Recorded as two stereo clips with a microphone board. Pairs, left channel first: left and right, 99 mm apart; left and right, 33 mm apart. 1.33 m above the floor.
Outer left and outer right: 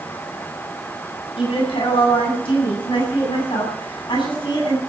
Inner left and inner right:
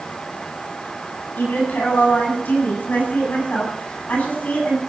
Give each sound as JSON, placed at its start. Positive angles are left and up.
{"t": 1.4, "sound": "a woman speaking", "side_deg": 70, "distance_m": 8.0}